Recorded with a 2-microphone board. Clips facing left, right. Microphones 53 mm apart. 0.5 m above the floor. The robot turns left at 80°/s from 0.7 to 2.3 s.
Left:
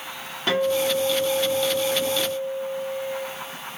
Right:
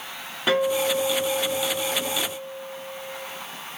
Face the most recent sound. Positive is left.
turn(degrees=-10)  # may be behind; listen again after turning